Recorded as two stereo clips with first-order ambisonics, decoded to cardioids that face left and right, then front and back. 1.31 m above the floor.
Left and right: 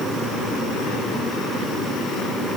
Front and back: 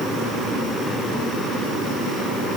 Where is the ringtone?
No ringtone in this recording.